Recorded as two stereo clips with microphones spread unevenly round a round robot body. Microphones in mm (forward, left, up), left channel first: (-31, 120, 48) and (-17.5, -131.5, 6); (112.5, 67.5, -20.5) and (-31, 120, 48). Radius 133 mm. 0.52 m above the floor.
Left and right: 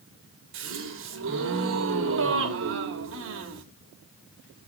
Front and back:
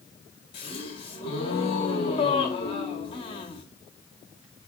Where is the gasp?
60° right, 1.5 m.